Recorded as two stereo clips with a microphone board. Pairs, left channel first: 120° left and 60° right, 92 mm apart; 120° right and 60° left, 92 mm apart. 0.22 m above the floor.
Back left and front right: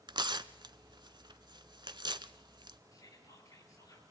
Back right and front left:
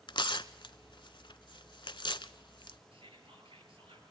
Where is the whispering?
70° left, 4.5 m.